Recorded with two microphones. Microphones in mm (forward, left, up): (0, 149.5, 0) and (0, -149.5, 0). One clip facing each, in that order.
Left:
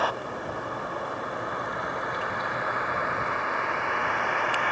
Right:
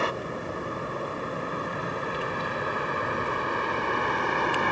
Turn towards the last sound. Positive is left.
turn(degrees=-45)  # may be behind; listen again after turning